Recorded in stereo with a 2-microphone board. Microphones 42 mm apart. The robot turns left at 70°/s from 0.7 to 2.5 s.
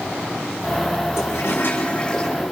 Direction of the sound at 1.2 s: 75° left.